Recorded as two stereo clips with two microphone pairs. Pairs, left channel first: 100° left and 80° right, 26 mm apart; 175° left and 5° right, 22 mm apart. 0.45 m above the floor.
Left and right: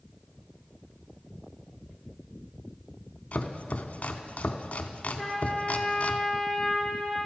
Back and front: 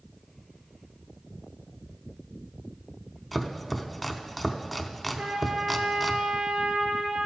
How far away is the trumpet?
About 1.8 m.